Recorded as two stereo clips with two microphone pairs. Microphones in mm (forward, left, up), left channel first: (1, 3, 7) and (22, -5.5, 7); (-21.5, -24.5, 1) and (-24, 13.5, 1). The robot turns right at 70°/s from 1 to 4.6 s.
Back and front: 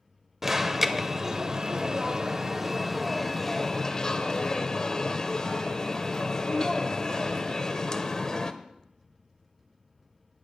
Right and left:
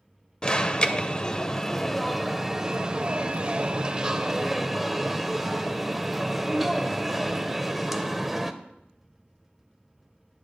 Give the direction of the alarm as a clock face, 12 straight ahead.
2 o'clock.